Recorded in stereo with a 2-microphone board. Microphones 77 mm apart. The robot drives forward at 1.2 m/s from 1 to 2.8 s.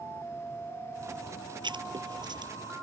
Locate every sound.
1.6 s writing: 80° right; by 2.5 s 70° right (ahead or behind)